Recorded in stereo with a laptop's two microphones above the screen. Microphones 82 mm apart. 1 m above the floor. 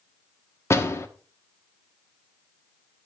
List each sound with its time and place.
0.7 s a door slam: 35° left (ahead or behind), 1.2 m